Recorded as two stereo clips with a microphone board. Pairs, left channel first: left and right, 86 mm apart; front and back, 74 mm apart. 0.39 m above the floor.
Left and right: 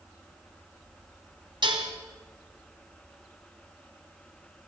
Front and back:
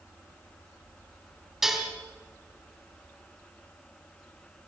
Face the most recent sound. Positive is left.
turn(degrees=-95)